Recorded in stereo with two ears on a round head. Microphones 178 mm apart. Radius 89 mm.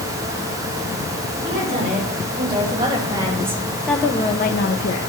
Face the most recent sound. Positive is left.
turn(degrees=75)  # may be behind; listen again after turning